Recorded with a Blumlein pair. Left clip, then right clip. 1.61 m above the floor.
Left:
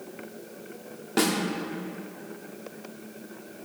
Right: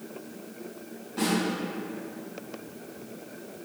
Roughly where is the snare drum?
Ahead left.